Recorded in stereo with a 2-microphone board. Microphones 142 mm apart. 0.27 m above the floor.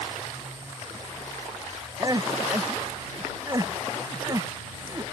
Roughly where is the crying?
Right.